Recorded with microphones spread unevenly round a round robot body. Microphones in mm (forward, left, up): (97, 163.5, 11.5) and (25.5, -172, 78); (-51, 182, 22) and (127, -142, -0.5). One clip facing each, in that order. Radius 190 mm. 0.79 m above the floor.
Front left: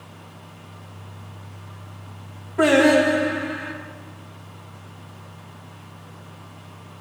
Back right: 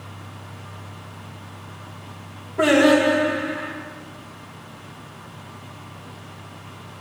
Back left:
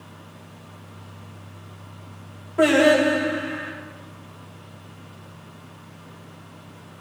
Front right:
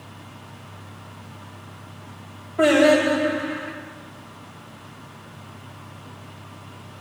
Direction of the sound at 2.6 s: 155° left.